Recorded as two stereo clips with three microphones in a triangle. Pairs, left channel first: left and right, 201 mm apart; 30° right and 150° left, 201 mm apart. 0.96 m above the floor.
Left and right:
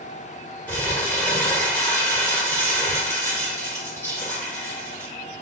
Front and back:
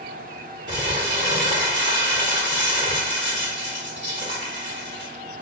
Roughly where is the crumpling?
Behind.